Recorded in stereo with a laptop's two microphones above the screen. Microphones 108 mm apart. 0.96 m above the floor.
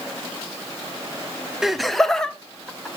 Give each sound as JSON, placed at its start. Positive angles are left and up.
{"t": 1.6, "sound": "laughter", "side_deg": -5, "distance_m": 0.6}